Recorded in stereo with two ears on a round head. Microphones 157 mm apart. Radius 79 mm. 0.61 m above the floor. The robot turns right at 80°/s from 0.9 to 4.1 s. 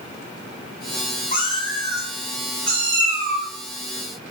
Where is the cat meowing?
125° left, 1.2 m; by 3.5 s 60° right, 1.2 m.